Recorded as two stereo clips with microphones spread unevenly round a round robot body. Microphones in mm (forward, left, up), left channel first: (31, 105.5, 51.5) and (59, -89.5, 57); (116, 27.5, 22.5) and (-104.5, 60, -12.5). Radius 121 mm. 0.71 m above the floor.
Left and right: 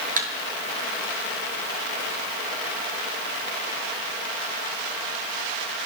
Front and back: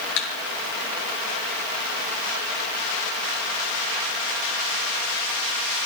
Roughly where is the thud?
Ahead right.